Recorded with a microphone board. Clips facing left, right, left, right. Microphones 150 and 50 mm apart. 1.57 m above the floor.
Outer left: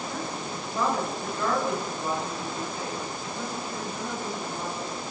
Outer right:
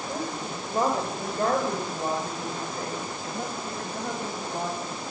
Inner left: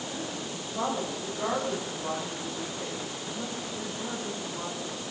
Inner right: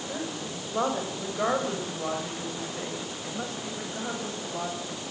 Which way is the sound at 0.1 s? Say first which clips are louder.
Outer right 1 dB, inner right 2 dB; 40° right (ahead or behind).